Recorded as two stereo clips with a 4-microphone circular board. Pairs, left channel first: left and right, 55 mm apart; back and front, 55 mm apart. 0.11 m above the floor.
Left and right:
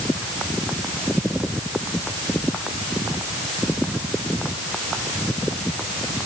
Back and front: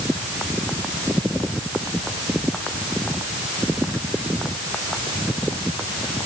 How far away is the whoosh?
I don't hear a whoosh.